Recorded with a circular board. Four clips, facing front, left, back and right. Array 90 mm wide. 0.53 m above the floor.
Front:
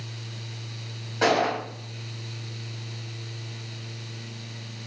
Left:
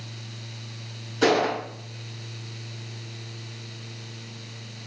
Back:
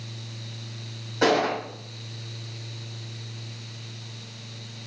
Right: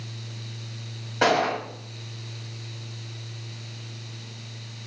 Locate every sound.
1.2 s a gunshot: 80° right, 2.5 m